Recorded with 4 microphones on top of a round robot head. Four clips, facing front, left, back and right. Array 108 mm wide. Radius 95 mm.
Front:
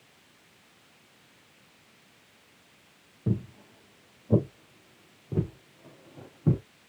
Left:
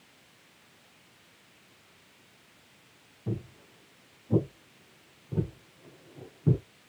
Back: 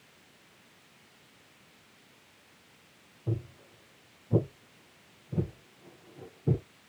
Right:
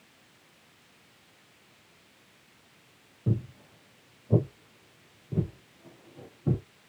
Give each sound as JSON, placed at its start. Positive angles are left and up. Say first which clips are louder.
{"t": 3.3, "sound": "footsteps", "louder": "right 4 dB, front 5 dB", "azimuth_deg": -30, "distance_m": 2.5}